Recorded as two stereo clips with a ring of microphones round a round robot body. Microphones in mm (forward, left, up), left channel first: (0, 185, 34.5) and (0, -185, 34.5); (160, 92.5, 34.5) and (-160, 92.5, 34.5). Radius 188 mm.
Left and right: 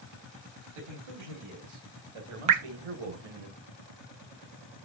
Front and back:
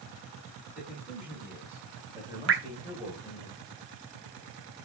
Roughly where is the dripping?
Behind right.